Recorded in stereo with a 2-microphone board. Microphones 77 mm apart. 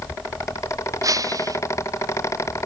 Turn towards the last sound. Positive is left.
turn(degrees=-45)  # may be behind; listen again after turning